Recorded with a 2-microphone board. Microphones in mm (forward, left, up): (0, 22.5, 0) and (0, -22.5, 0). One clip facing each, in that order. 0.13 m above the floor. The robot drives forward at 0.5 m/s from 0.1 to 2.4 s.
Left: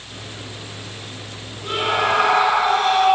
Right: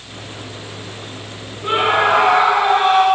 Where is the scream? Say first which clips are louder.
Right 5 dB; 35° right (ahead or behind), 10 m; by 3.1 s 30° right (ahead or behind), 10 m.